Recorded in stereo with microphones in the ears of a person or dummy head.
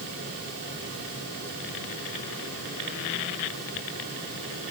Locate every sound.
Only background noise.